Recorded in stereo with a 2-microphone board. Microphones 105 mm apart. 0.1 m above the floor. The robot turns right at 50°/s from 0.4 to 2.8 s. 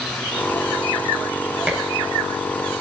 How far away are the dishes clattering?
About 1.1 m.